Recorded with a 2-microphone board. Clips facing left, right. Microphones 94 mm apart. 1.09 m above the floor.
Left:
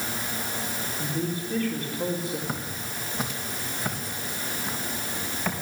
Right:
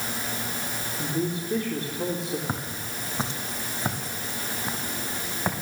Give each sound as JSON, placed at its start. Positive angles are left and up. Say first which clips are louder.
{"t": 1.0, "sound": "a man speaking", "louder": "right 3 dB", "side_deg": -25, "distance_m": 3.5}
{"t": 2.5, "sound": "footsteps", "louder": "right 1 dB", "side_deg": -30, "distance_m": 3.0}